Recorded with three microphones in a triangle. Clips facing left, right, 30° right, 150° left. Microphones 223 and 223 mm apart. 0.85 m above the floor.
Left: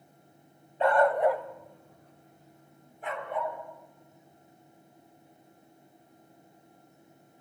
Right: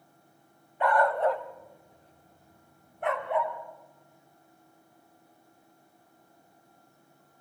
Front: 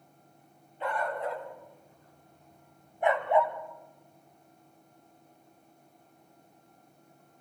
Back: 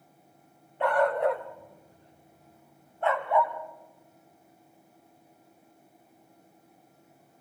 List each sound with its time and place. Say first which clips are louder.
0.8 s a dog barking: left 2 dB, back 9 dB; 150° left, 2 m; by 3.5 s 95° right, 2.5 m